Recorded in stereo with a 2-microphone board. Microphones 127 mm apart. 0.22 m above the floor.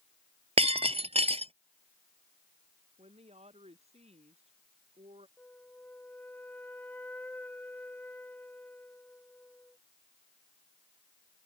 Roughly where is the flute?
Centre.